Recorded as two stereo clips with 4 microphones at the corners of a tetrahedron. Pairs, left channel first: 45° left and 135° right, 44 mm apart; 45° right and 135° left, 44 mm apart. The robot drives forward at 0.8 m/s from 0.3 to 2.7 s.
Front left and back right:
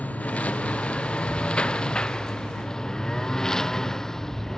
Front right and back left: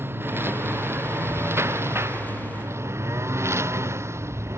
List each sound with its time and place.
0.0 s a lawn mower: 100° left; by 4.6 s 125° left